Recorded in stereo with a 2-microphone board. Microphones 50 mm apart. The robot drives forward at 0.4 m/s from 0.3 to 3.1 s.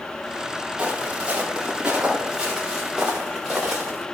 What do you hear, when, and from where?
0.8 s footsteps: 25° right (ahead or behind), 7.5 m; by 4.0 s 10° right (ahead or behind), 6.5 m